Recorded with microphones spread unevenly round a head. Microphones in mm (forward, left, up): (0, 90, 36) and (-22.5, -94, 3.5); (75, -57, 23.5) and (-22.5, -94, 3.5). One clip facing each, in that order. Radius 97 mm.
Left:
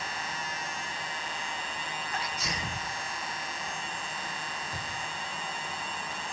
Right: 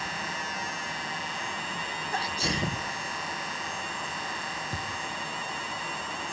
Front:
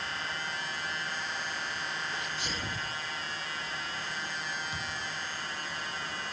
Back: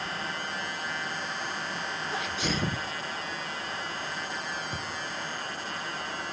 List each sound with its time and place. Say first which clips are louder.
2.1 s a sneeze: right 7 dB, back 6 dB; 160° right, 1.3 m
4.7 s a thud: right 3 dB, back 2 dB; 110° right, 6 m